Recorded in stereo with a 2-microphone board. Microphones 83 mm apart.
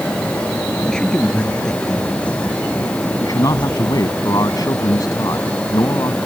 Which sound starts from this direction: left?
A man speaking, at 3.2 s.